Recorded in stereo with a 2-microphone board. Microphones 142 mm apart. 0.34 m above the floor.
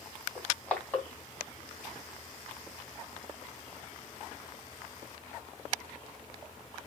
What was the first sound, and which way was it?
Crushing, 10° left (ahead or behind).